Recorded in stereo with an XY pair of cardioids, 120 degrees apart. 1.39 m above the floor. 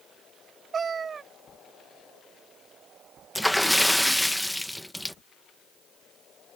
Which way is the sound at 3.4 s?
Straight ahead.